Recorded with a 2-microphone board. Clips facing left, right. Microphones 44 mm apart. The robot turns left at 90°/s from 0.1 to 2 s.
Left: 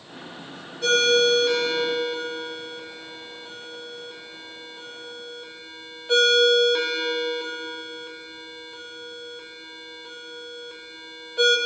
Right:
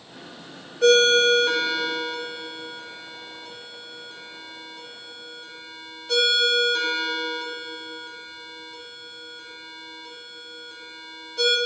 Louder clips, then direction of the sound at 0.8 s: Right 3 dB; 70° right (ahead or behind).